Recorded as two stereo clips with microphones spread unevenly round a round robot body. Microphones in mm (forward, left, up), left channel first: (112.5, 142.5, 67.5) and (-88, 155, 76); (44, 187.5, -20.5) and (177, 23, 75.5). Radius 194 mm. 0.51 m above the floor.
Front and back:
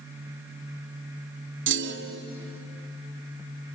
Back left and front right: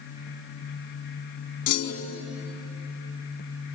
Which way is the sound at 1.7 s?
155° left.